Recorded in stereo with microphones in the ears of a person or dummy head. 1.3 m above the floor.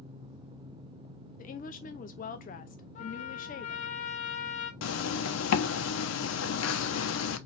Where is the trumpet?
45° left (ahead or behind), 0.7 m.